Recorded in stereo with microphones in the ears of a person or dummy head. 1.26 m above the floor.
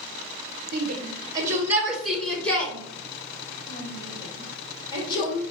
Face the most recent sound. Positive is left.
turn(degrees=25)  # may be behind; listen again after turning